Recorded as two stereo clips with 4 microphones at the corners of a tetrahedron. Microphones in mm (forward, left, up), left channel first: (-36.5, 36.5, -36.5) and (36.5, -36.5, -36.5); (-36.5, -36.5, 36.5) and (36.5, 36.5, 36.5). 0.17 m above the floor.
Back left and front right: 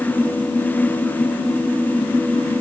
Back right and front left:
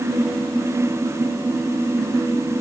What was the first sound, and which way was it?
Only background noise.